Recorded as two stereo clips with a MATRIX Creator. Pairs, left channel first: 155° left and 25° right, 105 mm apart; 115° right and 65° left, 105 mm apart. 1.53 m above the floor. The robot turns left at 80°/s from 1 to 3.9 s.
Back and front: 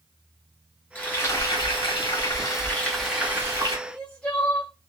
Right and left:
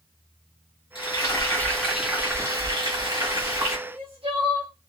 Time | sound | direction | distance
0.9 | frying | 130° right | 1.2 m
3.9 | crying | 80° left | 0.9 m